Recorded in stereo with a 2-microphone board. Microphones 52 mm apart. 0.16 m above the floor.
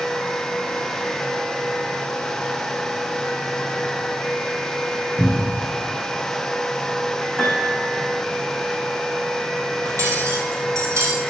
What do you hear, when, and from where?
5.2 s a cupboard door: 45° right (ahead or behind), 3 m
7.4 s a piano: 5° right (ahead or behind), 4 m
9.8 s cutlery clinking: 75° right (ahead or behind), 3 m